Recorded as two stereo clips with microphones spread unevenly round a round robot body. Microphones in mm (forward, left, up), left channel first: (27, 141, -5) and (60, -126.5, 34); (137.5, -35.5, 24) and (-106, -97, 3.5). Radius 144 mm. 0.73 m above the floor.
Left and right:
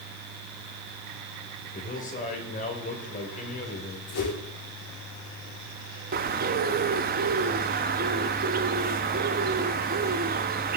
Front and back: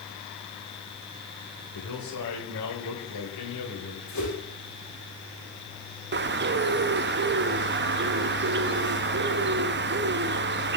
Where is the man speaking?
40° left, 4 m.